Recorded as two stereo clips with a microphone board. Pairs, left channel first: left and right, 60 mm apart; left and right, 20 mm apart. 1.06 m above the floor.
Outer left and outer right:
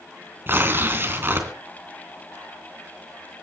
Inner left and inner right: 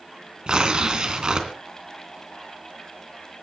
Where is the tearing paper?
35° right (ahead or behind), 3 m.